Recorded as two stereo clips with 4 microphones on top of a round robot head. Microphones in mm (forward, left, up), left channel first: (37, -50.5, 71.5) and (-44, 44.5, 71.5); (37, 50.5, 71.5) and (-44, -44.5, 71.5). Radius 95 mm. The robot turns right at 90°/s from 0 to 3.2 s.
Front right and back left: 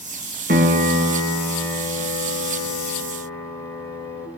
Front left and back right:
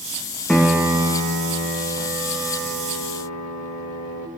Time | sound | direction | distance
0.5 | a piano | 130° left | 1.2 m